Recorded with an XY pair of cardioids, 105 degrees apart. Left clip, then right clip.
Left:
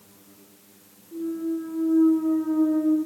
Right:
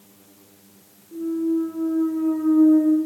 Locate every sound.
1.1 s a clunk: 20° right, 0.6 m